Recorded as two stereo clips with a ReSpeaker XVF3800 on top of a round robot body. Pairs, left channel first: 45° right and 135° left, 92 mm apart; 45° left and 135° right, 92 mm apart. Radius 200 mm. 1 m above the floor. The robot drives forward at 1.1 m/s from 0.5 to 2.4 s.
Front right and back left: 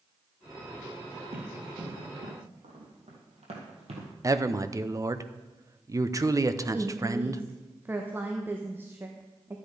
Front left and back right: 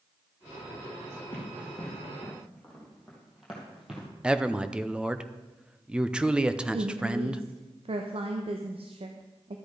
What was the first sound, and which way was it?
Running footsteps, 115° left.